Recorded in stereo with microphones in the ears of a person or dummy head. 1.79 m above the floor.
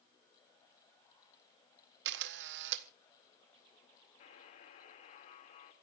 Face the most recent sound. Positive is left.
turn(degrees=25)  # may be behind; listen again after turning